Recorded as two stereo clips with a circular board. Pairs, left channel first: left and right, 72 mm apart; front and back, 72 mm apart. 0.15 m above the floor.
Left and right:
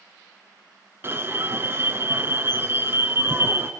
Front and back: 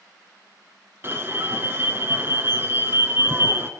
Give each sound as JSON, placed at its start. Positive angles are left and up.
{"t": 1.0, "sound": "an alarm", "azimuth_deg": -135, "distance_m": 1.3}